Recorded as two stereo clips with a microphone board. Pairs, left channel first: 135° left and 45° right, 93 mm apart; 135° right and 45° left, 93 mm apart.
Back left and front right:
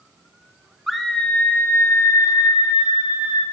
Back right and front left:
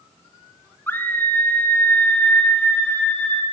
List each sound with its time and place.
0.9 s a scream: 125° right, 0.9 m; by 3.4 s 150° left, 1.7 m